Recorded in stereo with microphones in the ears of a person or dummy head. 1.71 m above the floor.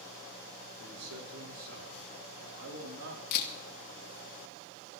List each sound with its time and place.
0.8 s a man speaking: 80° right, 4.5 m; by 3.2 s 65° right (ahead or behind), 3 m
3.3 s a camera shutter: 55° left (ahead or behind), 2 m